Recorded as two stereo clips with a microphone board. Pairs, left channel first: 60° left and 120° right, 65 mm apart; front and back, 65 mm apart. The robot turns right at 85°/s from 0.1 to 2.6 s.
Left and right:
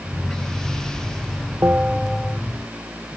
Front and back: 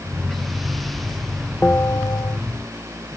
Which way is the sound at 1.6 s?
65° right.